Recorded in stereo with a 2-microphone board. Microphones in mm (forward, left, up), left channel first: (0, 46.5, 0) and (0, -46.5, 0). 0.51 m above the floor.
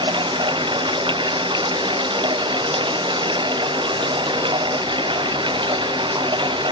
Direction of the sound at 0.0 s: 60° right (ahead or behind).